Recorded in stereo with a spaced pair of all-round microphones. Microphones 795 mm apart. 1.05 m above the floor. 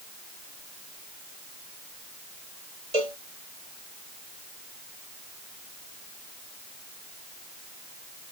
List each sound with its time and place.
2.9 s a cowbell: 55° right (ahead or behind)